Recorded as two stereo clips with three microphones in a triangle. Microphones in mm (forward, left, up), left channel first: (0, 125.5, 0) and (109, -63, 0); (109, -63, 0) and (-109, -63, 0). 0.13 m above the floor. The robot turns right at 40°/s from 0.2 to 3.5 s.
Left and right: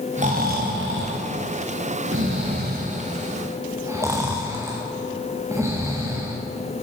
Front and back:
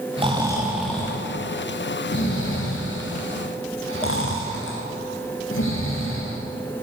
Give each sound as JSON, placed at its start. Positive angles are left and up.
{"t": 0.2, "sound": "snoring", "azimuth_deg": -115, "distance_m": 2.0}